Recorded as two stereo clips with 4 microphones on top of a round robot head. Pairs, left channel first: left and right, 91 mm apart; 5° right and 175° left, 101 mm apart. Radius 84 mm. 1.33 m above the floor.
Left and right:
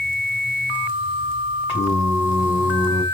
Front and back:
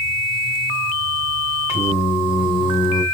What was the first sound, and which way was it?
Singing, straight ahead.